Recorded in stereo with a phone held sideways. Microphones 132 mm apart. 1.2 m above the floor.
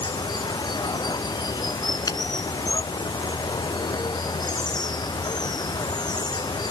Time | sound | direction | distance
0.0 | running water | 30° left (ahead or behind) | ?
2.1 | a finger snap | 30° left (ahead or behind) | ?